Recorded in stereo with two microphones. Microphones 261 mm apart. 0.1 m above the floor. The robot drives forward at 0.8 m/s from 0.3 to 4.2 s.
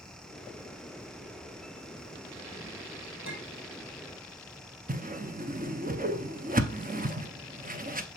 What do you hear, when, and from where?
3.2 s a clink: 45° right (ahead or behind), 1.8 m; by 3.6 s 55° right (ahead or behind), 1.6 m
4.9 s a whoosh: 30° right (ahead or behind), 0.8 m